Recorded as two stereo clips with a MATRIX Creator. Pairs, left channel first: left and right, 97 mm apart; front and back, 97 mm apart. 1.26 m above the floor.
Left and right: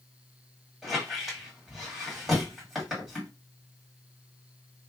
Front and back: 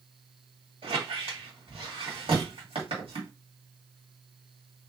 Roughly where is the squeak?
Behind.